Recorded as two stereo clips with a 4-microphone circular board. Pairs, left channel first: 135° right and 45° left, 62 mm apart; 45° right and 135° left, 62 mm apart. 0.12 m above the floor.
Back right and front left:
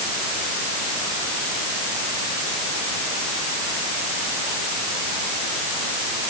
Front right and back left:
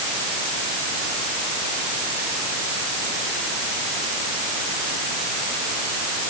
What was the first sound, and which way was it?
Only background noise.